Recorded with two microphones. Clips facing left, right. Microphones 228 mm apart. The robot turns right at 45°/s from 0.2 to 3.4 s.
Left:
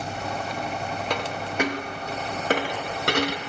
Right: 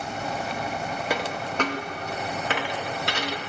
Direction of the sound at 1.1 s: 10° right (ahead or behind).